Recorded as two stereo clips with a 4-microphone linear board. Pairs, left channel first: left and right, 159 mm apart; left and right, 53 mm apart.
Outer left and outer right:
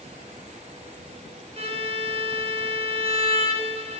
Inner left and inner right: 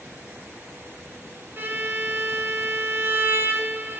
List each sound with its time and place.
1.6 s a violin: 40° right (ahead or behind), 1.4 m